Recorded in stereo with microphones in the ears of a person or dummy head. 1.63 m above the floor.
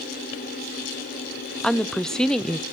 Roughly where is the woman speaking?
Centre.